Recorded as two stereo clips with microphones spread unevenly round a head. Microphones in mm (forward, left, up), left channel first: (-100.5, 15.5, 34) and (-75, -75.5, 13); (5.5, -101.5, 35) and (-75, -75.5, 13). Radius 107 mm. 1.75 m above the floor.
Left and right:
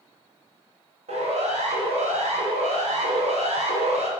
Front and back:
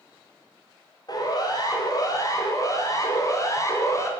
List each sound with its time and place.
1.1 s a siren: 55° right, 9 m; by 4.1 s 70° right, 6.5 m